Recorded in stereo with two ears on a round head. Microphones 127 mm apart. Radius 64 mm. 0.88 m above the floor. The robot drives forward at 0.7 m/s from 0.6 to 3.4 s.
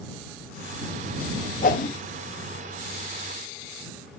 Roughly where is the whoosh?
Left.